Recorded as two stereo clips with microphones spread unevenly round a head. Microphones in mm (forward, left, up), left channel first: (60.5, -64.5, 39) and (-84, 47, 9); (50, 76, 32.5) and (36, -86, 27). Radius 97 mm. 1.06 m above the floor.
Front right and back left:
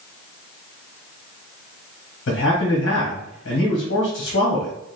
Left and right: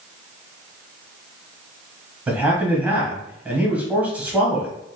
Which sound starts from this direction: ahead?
A man speaking, at 2.3 s.